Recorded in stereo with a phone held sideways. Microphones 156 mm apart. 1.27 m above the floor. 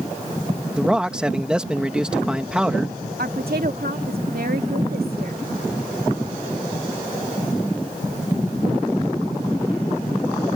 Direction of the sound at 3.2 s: 75° right (ahead or behind).